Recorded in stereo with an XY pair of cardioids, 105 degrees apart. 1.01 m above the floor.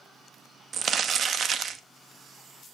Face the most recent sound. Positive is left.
turn(degrees=-50)